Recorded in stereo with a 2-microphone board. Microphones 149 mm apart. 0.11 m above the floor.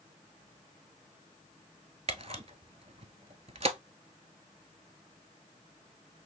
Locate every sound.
2.1 s a camera shutter: 50° right (ahead or behind), 0.6 m